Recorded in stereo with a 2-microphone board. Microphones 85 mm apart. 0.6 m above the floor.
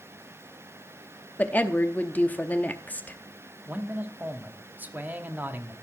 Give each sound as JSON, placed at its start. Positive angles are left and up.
{"t": 1.4, "sound": "a woman speaking", "side_deg": 20, "distance_m": 0.7}
{"t": 3.7, "sound": "a man speaking", "side_deg": -20, "distance_m": 1.0}